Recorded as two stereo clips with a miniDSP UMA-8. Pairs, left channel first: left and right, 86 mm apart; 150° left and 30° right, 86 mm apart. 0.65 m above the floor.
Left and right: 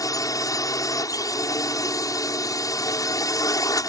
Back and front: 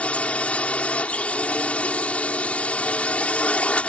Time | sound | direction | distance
0.0 | a drone | 80° left | ?